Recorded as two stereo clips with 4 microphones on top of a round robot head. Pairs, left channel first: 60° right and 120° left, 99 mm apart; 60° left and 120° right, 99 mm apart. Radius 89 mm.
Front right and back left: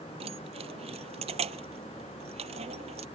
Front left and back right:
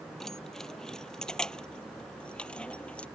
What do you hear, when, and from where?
0.2 s keys jangling: 145° left; by 3.1 s 135° left